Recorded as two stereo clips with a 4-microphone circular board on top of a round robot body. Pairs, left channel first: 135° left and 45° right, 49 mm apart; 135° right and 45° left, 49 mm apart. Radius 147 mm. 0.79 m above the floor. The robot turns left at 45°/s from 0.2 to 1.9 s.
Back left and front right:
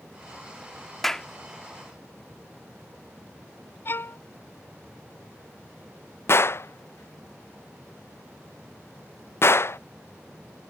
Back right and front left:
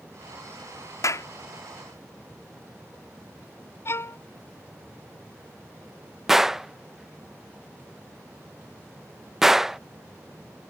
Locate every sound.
1.0 s a clap: 140° right; by 1.3 s 150° right
3.9 s a violin: 175° right
6.3 s a gunshot: 125° left